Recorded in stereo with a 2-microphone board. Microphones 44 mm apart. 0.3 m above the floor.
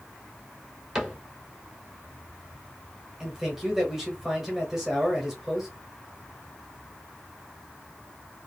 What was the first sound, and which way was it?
A cupboard door, 10° right (ahead or behind).